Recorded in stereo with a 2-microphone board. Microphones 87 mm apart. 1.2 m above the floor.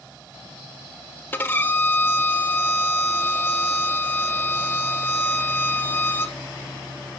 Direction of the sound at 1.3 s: 20° left (ahead or behind).